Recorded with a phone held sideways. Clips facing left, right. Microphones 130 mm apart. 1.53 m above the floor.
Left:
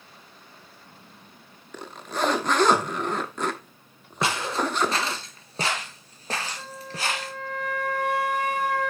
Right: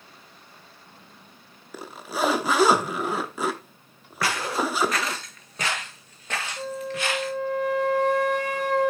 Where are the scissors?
I don't hear scissors.